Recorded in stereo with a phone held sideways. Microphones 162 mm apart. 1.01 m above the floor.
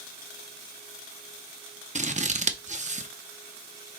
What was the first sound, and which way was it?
Scissors, 45° right (ahead or behind).